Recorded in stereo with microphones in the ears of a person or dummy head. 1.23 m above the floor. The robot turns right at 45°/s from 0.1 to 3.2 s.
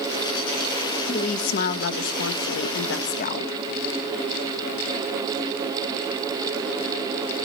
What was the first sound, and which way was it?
A woman speaking, 40° left.